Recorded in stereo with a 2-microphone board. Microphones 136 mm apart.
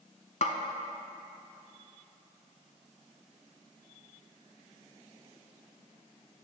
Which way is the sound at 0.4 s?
65° left (ahead or behind).